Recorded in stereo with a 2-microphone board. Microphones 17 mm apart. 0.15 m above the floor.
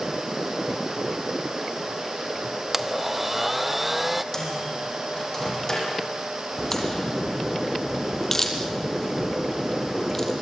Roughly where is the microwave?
Left.